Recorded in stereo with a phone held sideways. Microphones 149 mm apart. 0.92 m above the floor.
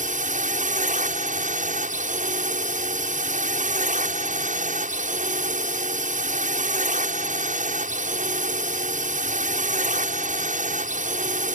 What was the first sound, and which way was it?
A drone, 60° right (ahead or behind).